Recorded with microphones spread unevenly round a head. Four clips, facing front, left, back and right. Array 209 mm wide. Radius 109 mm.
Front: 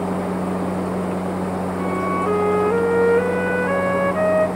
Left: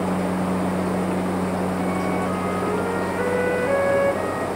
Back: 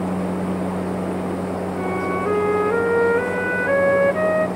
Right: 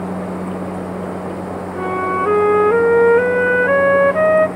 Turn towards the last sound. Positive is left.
turn(degrees=-85)